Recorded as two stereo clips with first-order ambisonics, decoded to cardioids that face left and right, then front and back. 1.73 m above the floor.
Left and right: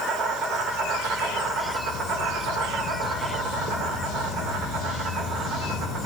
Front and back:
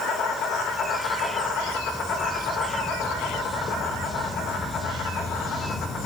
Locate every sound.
0.0 s an insect: 45° right, 2.5 m